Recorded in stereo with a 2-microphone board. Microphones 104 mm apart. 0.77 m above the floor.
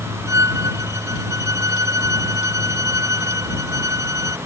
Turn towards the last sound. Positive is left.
turn(degrees=-30)  # may be behind; listen again after turning